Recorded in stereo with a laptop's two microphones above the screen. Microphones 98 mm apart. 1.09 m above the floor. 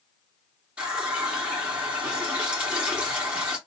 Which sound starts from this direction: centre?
A running tap, at 0.8 s.